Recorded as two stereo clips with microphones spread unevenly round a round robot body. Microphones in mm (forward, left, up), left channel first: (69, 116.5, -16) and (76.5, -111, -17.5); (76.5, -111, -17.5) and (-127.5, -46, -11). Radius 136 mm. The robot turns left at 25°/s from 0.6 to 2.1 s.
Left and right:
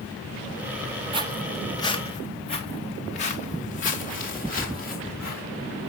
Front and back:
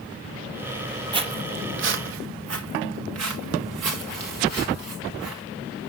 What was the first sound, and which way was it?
Footsteps, 140° right.